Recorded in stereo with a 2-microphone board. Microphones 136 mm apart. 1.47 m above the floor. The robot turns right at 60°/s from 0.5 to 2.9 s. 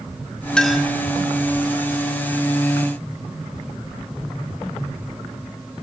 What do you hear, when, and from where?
0.6 s a clink: 5° left (ahead or behind), 1.5 m; by 0.9 s 10° right (ahead or behind), 1.5 m